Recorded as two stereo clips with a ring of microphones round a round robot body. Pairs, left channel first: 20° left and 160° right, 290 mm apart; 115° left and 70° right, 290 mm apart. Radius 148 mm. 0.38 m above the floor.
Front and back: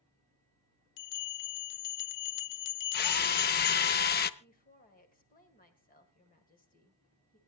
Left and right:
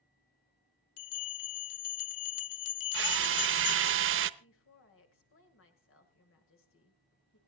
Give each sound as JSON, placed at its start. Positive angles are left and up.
{"t": 1.0, "sound": "a bell", "azimuth_deg": 70, "distance_m": 0.8}
{"t": 2.9, "sound": "a drill", "azimuth_deg": -30, "distance_m": 0.8}
{"t": 4.4, "sound": "a woman speaking", "azimuth_deg": 80, "distance_m": 2.0}